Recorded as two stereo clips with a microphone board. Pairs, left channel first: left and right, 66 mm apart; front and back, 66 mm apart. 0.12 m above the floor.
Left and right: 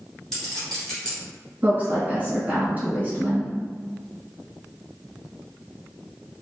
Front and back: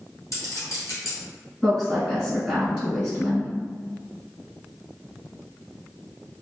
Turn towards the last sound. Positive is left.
turn(degrees=-80)